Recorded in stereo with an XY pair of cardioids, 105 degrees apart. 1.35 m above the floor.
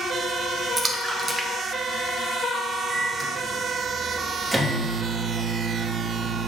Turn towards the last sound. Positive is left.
turn(degrees=-10)